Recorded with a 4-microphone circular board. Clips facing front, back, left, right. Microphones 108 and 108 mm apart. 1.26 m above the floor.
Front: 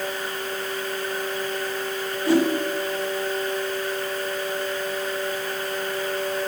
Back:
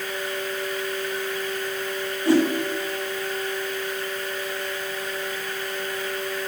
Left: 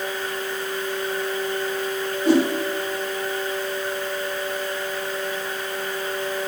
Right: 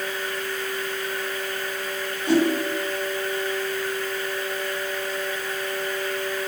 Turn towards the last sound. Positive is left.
turn(degrees=120)